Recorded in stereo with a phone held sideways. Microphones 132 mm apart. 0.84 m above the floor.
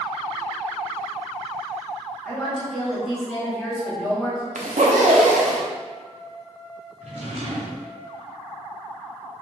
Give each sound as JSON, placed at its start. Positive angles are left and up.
{"t": 2.2, "sound": "a woman speaking", "side_deg": 5, "distance_m": 1.8}
{"t": 4.5, "sound": "a zipper", "side_deg": -80, "distance_m": 0.6}
{"t": 7.0, "sound": "a drawer", "side_deg": -65, "distance_m": 1.1}